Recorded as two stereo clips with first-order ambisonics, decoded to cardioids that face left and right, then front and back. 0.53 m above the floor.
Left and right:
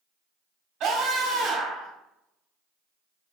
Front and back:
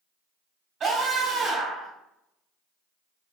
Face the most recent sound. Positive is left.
turn(degrees=-120)